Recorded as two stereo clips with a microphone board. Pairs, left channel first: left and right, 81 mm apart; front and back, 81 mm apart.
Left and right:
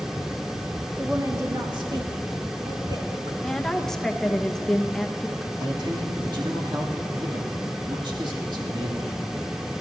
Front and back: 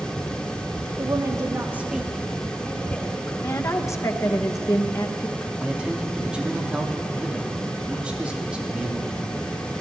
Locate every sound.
1.0 s a woman speaking: 155° right, 1.6 m; by 3.3 s 65° right, 3 m
3.4 s a woman speaking: 10° left, 0.9 m
5.6 s a man speaking: 105° right, 2 m